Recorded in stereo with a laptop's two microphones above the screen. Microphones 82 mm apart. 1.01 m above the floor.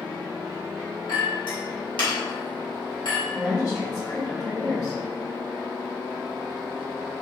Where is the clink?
75° left (ahead or behind), 1.4 m.